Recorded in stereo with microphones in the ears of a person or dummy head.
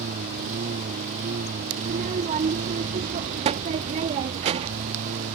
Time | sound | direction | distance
0.0 | a lawn mower | 45° right (ahead or behind) | ?
1.8 | a child speaking | 35° right (ahead or behind) | ?